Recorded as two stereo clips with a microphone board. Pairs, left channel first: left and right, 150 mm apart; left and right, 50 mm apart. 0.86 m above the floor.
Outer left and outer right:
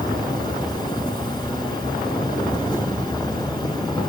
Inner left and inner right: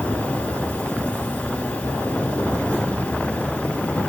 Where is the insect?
30° left (ahead or behind), 1.1 m.